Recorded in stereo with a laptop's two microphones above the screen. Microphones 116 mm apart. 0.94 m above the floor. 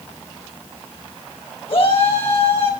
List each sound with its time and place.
1.7 s a shout: 55° left (ahead or behind), 4.5 m